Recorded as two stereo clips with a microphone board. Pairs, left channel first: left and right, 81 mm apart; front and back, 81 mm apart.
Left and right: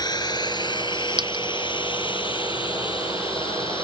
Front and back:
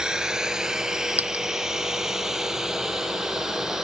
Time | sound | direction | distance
0.0 | a drone | 100° left | ?
1.2 | a dropped coin | 110° right | ?